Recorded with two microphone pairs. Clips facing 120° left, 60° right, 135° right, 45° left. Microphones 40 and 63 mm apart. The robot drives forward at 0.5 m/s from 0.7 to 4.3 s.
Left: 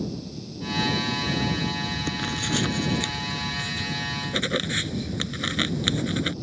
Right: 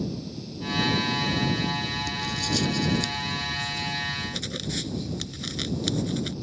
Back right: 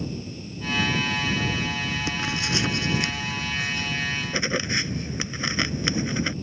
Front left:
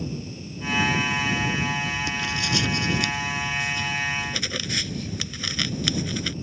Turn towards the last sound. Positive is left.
turn(degrees=165)